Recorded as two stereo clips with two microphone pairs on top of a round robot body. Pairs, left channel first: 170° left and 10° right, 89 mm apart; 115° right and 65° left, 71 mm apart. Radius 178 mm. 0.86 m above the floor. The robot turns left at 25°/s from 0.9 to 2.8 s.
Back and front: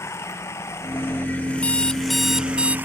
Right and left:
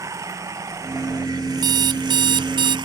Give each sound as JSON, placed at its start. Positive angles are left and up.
{"t": 0.0, "sound": "running water", "azimuth_deg": 110}
{"t": 1.6, "sound": "an alarm clock", "azimuth_deg": 95}